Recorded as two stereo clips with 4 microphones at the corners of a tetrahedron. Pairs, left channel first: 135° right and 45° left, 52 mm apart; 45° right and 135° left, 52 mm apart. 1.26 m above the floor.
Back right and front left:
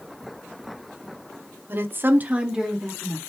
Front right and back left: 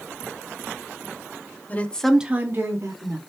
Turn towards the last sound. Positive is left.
turn(degrees=140)